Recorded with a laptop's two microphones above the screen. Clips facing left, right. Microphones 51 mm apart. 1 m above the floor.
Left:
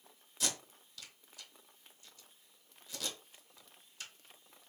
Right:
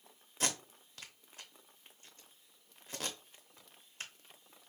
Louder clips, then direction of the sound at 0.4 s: Right 3 dB; 40° right (ahead or behind).